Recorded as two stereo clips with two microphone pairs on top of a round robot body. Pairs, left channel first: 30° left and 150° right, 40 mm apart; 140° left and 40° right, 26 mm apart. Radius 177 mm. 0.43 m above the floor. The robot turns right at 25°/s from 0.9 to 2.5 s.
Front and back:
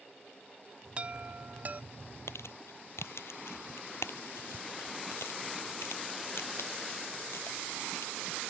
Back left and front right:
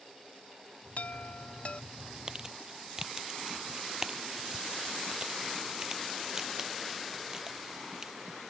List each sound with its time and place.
1.0 s a chime: 160° left; by 1.8 s straight behind
2.3 s crumpling: 25° left; by 8.1 s 30° left